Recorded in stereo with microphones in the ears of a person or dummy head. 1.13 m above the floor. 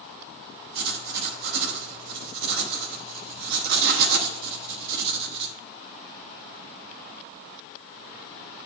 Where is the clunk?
I don't hear a clunk.